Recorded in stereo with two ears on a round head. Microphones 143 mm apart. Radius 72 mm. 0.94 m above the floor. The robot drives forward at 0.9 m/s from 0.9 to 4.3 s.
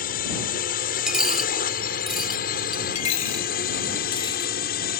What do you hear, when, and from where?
0.0 s a drone: 55° left (ahead or behind); by 5.0 s 60° left (ahead or behind)
1.1 s a dropped coin: 5° right (ahead or behind); by 2.9 s centre (ahead or behind)
3.0 s a dropped coin: 45° left (ahead or behind); by 4.9 s 30° left (ahead or behind)